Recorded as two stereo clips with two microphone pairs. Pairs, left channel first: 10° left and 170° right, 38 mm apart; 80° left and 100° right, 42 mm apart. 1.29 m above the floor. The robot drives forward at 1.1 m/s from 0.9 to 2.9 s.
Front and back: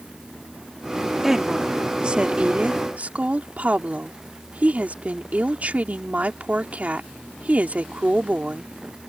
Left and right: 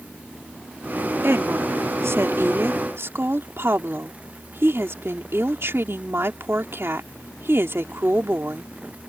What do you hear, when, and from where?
1.2 s a woman speaking: 90° right; by 8.7 s 120° right